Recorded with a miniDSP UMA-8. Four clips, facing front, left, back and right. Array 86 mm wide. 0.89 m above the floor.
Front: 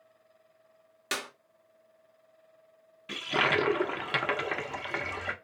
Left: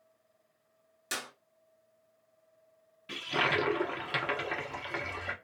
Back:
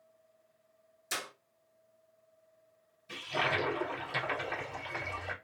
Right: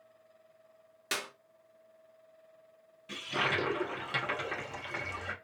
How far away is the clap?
About 1.0 m.